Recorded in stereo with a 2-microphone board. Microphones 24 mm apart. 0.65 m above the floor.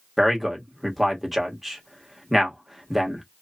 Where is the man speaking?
10° right (ahead or behind), 1.0 m.